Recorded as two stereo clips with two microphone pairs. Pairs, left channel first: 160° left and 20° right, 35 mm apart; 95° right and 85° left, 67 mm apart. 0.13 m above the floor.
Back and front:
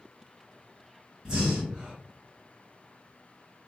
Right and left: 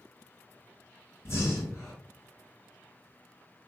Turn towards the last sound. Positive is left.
turn(degrees=-85)